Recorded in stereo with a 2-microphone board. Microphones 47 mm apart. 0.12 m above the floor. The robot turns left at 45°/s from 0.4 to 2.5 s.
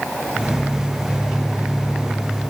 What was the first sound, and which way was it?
Only background noise.